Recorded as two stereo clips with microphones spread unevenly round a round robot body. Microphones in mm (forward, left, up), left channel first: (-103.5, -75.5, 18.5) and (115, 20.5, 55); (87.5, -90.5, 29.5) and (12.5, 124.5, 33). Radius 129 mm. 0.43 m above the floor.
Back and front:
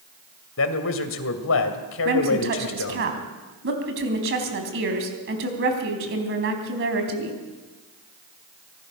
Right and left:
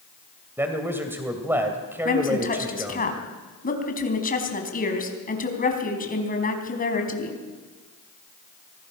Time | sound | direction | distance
0.6 | a man speaking | 170° right | 2 m
2.0 | a woman speaking | 20° right | 4 m